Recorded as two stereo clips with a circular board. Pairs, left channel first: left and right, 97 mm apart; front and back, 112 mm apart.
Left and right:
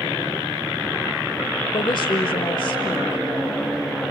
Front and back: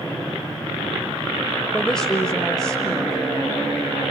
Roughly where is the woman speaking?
Left.